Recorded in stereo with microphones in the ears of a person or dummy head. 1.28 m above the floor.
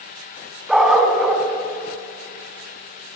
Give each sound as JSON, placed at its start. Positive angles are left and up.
{"t": 0.7, "sound": "a dog barking", "side_deg": 0, "distance_m": 3.0}